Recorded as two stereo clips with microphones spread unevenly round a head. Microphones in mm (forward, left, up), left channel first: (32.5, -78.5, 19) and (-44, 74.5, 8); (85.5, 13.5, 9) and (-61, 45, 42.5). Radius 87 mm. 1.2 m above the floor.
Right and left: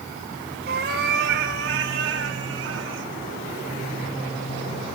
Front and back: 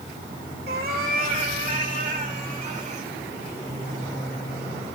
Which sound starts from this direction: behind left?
A cat meowing, at 0.7 s.